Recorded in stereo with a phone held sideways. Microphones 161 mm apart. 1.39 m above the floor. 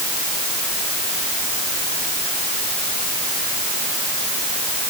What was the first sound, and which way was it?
Only background noise.